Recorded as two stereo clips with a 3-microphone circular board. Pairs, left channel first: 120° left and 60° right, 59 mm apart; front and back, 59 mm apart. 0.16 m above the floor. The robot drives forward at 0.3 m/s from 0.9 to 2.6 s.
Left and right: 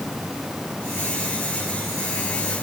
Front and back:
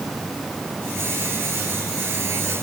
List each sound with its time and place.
Only background noise.